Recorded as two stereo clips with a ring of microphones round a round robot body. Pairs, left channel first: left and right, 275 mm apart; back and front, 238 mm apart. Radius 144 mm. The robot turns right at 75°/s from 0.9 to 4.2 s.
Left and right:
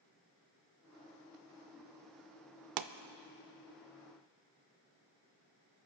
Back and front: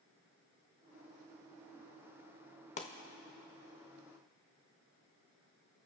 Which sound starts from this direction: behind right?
A pop, at 2.8 s.